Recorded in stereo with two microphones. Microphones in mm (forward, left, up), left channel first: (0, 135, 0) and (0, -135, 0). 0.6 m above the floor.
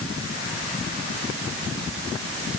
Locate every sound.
Only background noise.